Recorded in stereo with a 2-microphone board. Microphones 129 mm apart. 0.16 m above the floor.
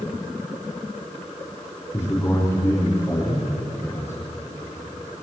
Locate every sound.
1.9 s a man speaking: 20° left (ahead or behind), 6.5 m